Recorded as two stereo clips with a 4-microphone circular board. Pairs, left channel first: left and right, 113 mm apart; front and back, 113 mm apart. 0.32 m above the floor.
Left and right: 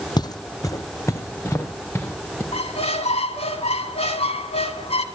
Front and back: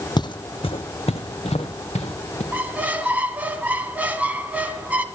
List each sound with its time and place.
0.2 s footsteps: 45° left, 0.6 m; by 2.4 s 20° left, 2 m
2.5 s a squeak: 105° left, 1.2 m